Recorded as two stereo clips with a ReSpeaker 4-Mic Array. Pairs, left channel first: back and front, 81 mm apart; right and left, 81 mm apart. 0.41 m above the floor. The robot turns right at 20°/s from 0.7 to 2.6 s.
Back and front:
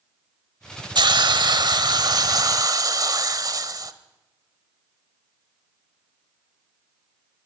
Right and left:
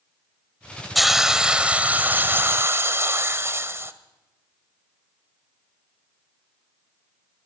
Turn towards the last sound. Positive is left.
turn(degrees=35)